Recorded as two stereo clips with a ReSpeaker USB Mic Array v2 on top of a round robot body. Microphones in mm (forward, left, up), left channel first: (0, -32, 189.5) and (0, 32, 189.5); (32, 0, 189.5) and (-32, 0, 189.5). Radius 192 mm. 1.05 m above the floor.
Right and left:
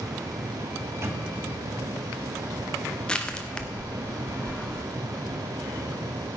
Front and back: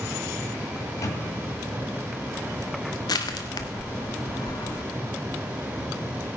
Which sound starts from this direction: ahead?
Crushing, at 3.1 s.